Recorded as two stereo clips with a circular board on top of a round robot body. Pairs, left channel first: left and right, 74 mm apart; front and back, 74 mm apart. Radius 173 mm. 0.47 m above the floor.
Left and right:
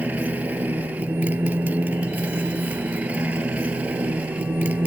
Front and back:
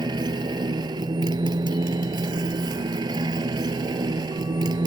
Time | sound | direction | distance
0.0 | a motorcycle | 160° right | ?